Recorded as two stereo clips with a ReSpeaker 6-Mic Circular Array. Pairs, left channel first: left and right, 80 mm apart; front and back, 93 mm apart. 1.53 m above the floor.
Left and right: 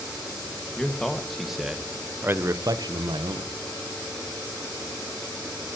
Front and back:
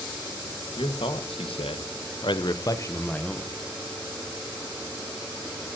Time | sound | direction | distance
0.8 | a man speaking | 10° left | 1.9 m